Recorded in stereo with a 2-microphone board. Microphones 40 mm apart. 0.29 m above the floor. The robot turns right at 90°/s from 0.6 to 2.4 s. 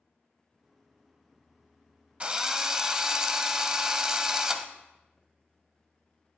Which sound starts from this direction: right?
A drill, at 2.2 s.